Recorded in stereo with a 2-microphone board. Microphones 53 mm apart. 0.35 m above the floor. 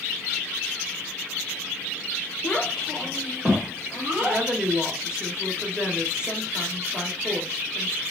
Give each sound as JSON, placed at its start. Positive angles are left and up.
{"t": 2.4, "sound": "a child speaking", "side_deg": 25, "distance_m": 1.1}
{"t": 4.2, "sound": "a woman speaking", "side_deg": -15, "distance_m": 1.2}